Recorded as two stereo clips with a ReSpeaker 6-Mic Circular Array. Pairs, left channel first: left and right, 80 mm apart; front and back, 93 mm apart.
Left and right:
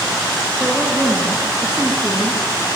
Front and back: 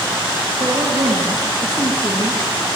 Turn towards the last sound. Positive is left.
turn(degrees=-170)